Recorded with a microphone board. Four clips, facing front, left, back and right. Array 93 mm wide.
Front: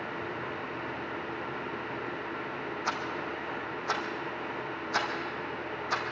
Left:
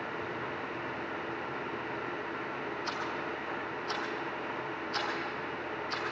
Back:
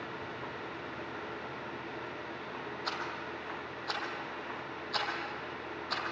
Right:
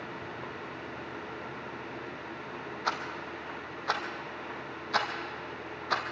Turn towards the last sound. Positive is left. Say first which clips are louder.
# right 5 dB, front 5 dB
turn(degrees=-75)